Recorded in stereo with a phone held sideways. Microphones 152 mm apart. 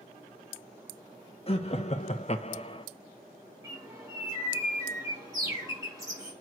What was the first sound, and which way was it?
Laughter, 40° left (ahead or behind).